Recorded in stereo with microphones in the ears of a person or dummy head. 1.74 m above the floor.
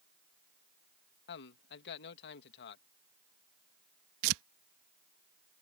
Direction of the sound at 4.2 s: 65° right (ahead or behind).